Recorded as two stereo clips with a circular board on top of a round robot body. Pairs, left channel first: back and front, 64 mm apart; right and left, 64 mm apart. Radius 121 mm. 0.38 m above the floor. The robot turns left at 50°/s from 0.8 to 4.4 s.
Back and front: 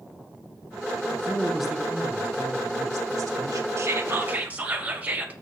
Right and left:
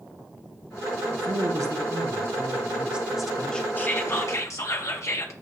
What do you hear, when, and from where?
1.1 s a man speaking: 110° left, 2.5 m; by 3.7 s 20° right, 2.5 m
3.8 s whispering: 35° right, 2.5 m; by 5.3 s 65° right, 2.5 m